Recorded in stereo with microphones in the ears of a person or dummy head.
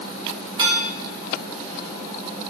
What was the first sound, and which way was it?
Dishes clattering, 25° right (ahead or behind).